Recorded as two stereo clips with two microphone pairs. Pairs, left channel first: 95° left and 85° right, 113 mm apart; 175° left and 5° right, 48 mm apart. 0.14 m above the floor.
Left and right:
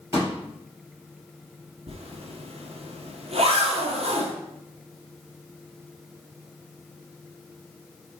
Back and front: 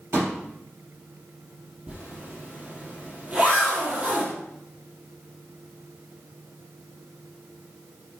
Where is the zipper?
65° right, 1.6 m.